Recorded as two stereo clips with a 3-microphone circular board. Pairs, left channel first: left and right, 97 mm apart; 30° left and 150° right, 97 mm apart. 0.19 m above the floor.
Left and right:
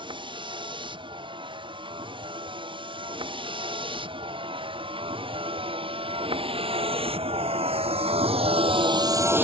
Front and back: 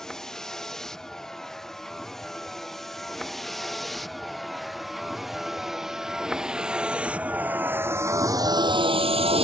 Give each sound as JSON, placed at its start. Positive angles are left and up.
{"t": 0.0, "sound": "a vehicle", "azimuth_deg": -55}